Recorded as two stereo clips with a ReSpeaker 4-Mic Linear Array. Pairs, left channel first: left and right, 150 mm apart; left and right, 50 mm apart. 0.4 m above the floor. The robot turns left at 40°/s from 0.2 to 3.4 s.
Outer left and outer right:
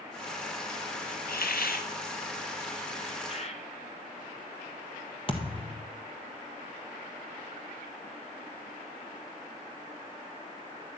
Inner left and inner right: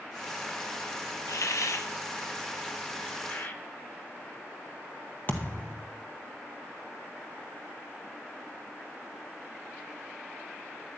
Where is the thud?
40° left (ahead or behind), 1.3 m.